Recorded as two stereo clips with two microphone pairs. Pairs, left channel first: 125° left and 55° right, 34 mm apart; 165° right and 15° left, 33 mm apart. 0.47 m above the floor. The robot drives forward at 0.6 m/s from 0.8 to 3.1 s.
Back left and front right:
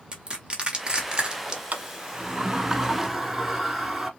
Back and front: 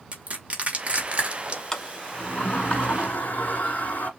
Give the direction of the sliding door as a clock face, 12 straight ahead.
3 o'clock.